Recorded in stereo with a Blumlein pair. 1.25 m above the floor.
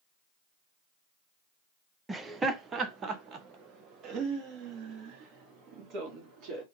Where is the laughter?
10° right, 0.7 m; by 6.6 s 35° right, 3 m.